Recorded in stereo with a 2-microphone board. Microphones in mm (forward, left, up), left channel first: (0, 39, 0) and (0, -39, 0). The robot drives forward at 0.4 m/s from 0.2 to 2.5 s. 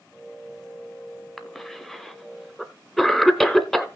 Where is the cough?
5° left (ahead or behind), 1.2 m.